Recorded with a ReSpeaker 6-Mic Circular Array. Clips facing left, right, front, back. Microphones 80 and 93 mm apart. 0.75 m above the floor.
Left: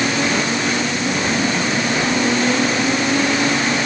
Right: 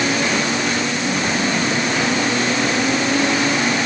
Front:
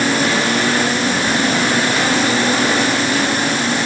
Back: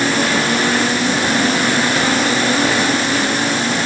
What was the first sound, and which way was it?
Only background noise.